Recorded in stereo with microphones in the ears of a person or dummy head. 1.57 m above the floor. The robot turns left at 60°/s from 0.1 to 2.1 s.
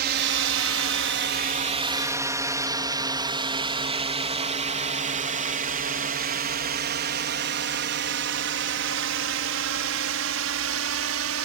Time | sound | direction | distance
0.0 | a drone | 55° right (ahead or behind) | ?